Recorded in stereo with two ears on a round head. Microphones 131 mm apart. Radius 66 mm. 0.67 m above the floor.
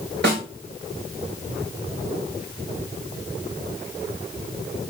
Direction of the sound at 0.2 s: 75° right (ahead or behind).